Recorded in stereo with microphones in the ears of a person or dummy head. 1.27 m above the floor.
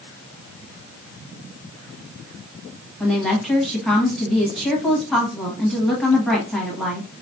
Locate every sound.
3.0 s a woman speaking: 5° left (ahead or behind), 1.2 m